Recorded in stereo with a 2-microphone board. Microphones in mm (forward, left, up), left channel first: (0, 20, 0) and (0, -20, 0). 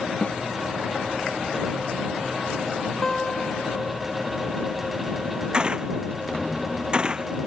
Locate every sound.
0.2 s a snare drum: 45° left (ahead or behind)
3.0 s a guitar: 20° left (ahead or behind)
5.5 s a gunshot: 20° right (ahead or behind)